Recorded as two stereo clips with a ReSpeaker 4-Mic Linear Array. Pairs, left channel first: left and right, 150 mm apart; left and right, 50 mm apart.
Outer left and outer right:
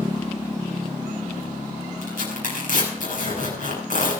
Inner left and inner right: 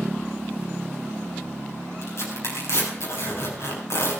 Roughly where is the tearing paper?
Left.